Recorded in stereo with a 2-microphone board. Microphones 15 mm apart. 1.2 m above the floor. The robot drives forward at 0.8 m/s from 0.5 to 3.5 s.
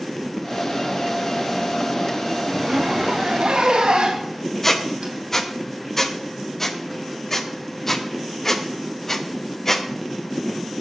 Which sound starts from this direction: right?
A zipper, at 2.5 s.